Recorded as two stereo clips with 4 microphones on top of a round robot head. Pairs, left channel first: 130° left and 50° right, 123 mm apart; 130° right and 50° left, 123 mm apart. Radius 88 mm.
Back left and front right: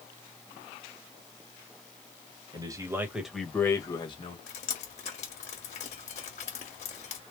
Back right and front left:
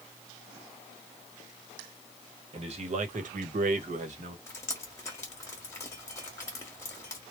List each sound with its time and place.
2.5 s a man speaking: 10° left, 1.4 m; by 4.4 s 85° left, 1.4 m
4.5 s dripping: 165° left, 1.1 m